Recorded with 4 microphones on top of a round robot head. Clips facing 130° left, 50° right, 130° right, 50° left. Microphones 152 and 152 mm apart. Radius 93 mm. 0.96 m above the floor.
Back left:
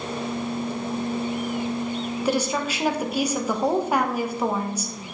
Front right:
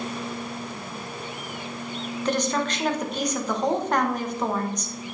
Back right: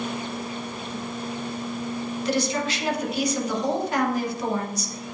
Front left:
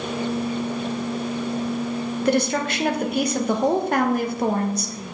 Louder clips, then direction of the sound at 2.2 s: Even, front left 4 dB; 50° left.